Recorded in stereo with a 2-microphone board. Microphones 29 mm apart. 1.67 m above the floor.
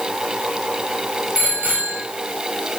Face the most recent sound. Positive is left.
turn(degrees=-75)  # may be behind; listen again after turning